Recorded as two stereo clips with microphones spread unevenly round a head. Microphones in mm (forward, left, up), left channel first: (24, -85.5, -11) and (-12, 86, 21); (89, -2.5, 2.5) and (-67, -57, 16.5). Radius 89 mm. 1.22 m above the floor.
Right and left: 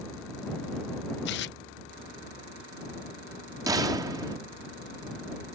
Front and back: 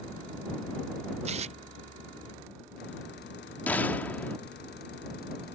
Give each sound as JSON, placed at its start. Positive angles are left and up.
{"t": 1.2, "sound": "tearing paper", "azimuth_deg": -110}
{"t": 3.7, "sound": "a gunshot", "azimuth_deg": 100}